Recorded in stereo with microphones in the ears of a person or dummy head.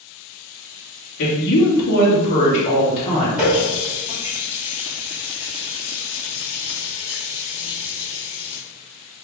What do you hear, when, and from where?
1.2 s a woman speaking: 70° left (ahead or behind), 1.0 m; by 3.3 s 15° left (ahead or behind), 1.1 m
3.4 s a running tap: 10° right (ahead or behind), 1.7 m